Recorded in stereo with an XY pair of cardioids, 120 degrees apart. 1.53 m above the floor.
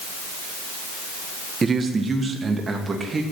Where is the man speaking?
30° right, 1.5 m; by 3.2 s 25° right, 3 m.